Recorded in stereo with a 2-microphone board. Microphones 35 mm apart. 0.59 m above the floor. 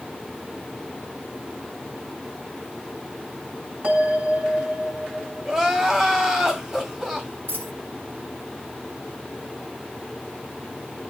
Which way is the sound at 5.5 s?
20° right (ahead or behind).